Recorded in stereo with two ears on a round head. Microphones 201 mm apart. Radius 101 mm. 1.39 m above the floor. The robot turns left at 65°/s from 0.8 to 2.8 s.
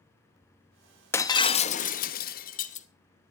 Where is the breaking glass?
165° left, 0.8 m; by 2.9 s 55° left, 0.8 m.